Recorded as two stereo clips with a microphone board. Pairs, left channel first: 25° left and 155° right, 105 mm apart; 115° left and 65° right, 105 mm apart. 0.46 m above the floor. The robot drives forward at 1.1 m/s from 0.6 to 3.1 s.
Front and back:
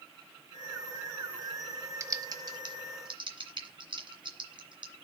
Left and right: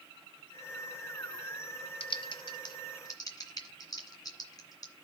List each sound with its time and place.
2.0 s typing on a keyboard: 140° left, 0.9 m; by 4.9 s 165° left, 2.0 m